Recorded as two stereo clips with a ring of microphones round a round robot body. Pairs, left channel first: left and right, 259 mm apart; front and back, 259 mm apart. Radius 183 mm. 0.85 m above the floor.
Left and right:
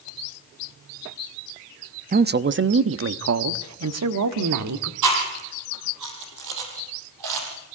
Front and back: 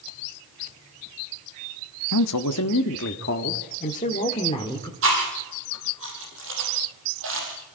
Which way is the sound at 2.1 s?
30° right.